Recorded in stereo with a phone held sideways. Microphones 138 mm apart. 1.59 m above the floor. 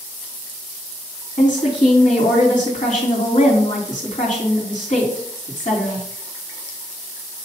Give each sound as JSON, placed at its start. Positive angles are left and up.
{"t": 1.4, "sound": "a woman speaking", "side_deg": 70, "distance_m": 2.5}